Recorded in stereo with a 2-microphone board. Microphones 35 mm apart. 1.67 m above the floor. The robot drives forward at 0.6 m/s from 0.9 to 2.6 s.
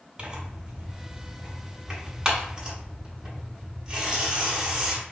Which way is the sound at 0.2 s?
20° right (ahead or behind).